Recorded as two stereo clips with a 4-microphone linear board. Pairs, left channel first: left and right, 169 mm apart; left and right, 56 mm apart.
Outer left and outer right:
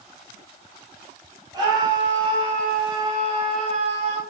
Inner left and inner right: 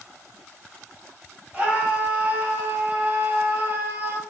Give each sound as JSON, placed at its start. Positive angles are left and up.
{"t": 1.5, "sound": "a scream", "side_deg": -25, "distance_m": 5.0}